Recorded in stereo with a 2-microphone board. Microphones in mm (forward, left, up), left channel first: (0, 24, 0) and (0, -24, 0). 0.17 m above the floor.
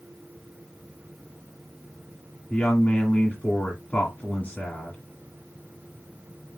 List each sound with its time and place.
2.5 s a woman speaking: 30° left (ahead or behind), 1.5 m